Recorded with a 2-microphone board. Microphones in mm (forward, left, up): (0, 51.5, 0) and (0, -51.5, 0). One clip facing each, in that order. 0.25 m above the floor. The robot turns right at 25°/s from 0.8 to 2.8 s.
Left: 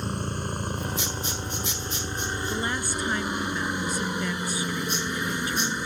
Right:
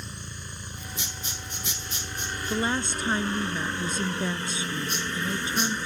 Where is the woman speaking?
15° right (ahead or behind); by 5.8 s 25° right (ahead or behind).